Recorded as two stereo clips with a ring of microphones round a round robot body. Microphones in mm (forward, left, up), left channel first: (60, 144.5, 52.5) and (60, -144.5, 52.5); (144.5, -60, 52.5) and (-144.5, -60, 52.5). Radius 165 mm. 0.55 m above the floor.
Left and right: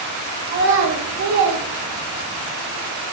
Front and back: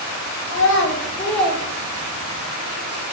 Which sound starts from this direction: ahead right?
A child speaking, at 0.5 s.